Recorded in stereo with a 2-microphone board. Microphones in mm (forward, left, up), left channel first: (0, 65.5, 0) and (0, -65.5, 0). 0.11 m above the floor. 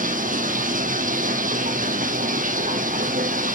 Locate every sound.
0.0 s running water: 70° right (ahead or behind), 1.1 m